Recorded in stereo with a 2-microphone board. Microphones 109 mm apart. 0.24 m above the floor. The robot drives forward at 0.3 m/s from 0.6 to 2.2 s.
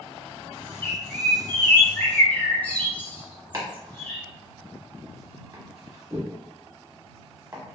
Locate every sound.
0.8 s a bird: 20° left (ahead or behind), 0.5 m; by 4.2 s 15° left (ahead or behind), 0.7 m
3.5 s chopping: 30° right (ahead or behind), 1.0 m